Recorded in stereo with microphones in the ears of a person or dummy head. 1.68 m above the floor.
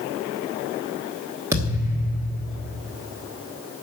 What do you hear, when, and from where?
1.5 s a thud: 20° right (ahead or behind), 1.3 m